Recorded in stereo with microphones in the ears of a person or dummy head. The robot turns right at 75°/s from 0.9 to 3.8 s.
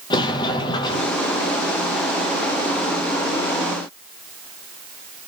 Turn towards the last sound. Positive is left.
turn(degrees=-120)